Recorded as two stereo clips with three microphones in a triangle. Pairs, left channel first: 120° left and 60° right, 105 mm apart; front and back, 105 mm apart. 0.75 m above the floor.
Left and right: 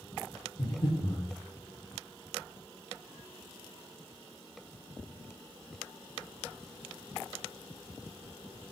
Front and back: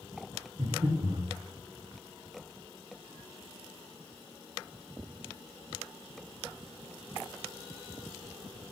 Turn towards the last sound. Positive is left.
turn(degrees=165)